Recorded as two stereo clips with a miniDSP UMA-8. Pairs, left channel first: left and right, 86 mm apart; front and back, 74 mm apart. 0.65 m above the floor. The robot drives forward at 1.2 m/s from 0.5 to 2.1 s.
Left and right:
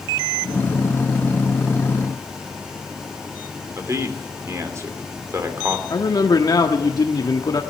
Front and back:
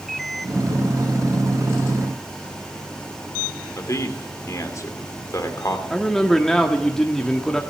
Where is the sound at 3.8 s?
40° right, 2.5 m.